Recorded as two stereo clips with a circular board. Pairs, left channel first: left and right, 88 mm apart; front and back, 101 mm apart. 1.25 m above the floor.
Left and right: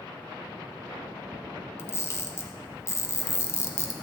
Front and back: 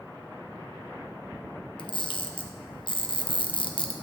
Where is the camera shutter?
35° left, 1.2 m.